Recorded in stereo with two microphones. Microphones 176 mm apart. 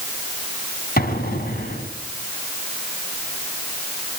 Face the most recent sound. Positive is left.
turn(degrees=60)  # may be behind; listen again after turning